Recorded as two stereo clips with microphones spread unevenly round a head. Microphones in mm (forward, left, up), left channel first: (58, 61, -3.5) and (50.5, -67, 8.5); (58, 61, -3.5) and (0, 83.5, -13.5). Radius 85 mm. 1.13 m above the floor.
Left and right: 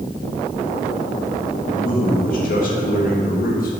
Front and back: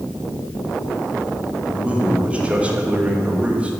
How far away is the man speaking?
About 1.7 m.